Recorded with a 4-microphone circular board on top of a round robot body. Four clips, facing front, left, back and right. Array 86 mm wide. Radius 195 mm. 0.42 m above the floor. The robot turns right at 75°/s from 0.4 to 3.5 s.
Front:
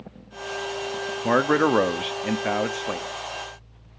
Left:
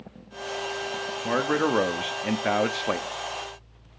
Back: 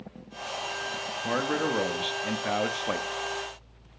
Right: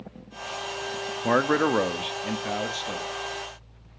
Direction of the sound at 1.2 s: 35° right.